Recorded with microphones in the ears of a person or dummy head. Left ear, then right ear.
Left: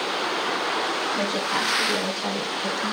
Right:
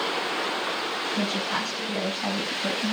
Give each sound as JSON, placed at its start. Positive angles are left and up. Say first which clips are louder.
{"t": 1.1, "sound": "a woman speaking", "louder": "left 3 dB", "side_deg": 30, "distance_m": 7.0}